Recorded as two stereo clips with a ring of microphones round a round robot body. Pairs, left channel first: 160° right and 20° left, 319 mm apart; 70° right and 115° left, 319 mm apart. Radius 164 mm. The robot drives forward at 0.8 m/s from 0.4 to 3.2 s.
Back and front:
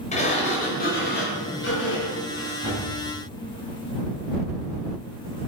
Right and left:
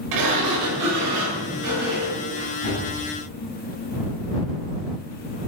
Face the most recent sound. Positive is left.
turn(degrees=160)